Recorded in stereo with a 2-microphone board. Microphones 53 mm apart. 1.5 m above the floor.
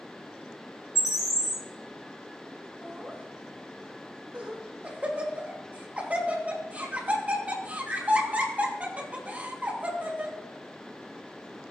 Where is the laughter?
25° right (ahead or behind), 3 m.